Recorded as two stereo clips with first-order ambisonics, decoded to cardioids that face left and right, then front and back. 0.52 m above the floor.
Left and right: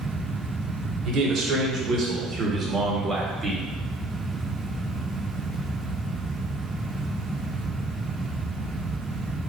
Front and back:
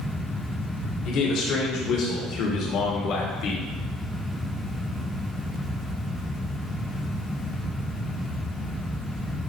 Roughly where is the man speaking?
Ahead right.